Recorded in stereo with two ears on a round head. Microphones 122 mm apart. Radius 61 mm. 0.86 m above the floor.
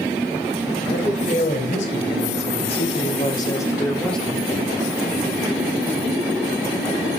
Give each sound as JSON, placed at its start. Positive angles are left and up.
{"t": 0.9, "sound": "a man speaking", "side_deg": 65, "distance_m": 5.0}